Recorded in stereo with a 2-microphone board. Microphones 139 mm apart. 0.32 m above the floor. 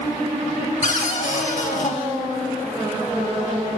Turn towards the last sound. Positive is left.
turn(degrees=60)  # may be behind; listen again after turning